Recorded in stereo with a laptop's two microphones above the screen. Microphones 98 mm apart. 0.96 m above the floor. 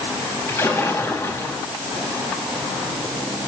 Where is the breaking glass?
I don't hear breaking glass.